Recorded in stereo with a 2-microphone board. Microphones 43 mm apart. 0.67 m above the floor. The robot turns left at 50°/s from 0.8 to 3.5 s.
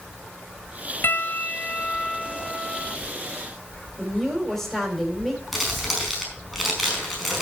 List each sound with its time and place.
1.0 s a piano: 75° left, 1.1 m; by 3.0 s 20° right, 1.1 m
4.0 s a woman speaking: 10° left (ahead or behind), 3.5 m
5.5 s crumpling: centre (ahead or behind), 4.5 m